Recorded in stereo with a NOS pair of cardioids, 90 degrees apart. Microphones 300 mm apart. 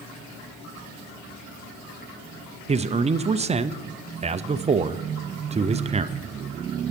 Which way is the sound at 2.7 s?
20° right.